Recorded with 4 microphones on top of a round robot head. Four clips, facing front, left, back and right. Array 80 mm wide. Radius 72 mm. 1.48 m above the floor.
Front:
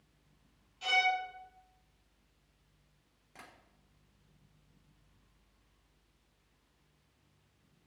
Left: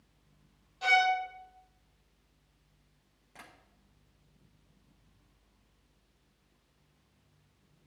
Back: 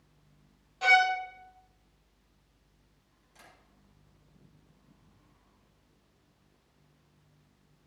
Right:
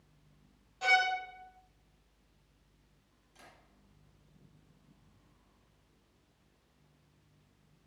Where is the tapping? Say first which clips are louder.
Left 5 dB, front 3 dB; 50° left, 5 m.